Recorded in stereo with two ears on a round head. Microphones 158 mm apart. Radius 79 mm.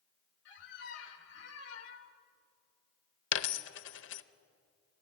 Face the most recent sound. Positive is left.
turn(degrees=75)  # may be behind; listen again after turning